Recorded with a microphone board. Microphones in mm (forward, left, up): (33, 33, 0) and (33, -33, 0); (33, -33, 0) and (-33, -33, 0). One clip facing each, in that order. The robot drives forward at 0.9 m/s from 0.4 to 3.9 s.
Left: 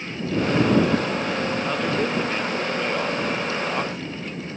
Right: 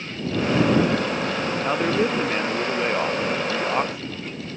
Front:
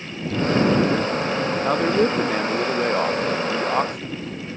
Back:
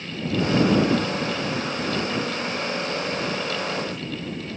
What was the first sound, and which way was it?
A man speaking, 20° right.